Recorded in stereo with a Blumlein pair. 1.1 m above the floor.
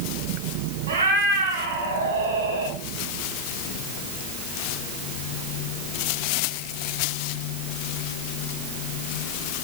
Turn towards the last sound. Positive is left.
turn(degrees=-60)